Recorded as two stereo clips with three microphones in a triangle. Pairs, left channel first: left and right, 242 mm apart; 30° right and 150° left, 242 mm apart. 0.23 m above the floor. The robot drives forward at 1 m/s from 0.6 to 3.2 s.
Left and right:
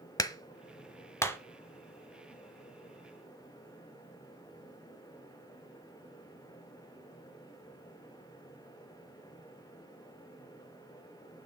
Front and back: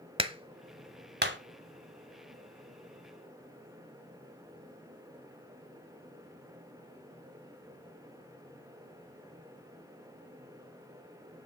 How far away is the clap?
About 1.0 m.